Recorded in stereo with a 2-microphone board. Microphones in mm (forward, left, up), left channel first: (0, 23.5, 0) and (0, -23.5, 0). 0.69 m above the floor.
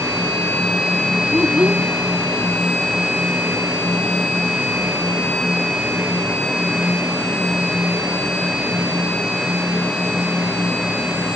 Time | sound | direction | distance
1.3 | a child speaking | 35° right (ahead or behind) | ?